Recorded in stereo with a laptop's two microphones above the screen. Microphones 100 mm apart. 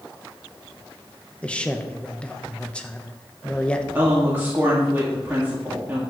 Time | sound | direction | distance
1.4 | a man speaking | 10° left (ahead or behind) | 0.8 m
4.0 | a woman speaking | 20° right (ahead or behind) | 1.8 m